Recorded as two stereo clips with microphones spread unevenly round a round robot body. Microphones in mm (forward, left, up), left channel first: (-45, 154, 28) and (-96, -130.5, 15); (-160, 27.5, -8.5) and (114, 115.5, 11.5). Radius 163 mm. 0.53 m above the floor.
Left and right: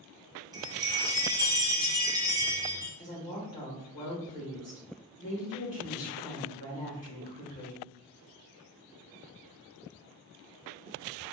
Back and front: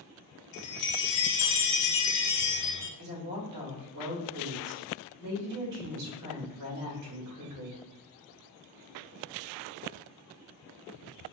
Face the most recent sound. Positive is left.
turn(degrees=35)